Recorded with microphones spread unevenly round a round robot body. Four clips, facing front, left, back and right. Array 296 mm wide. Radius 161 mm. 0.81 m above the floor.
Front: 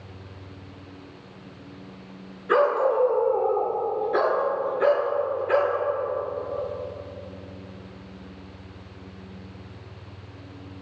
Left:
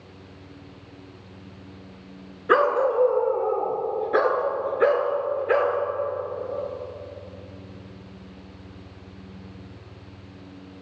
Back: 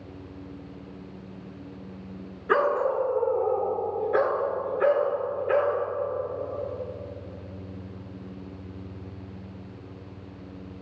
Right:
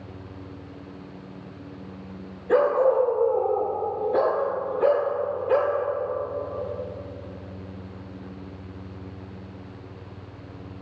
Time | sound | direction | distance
2.5 | a dog barking | 100° left | 4 m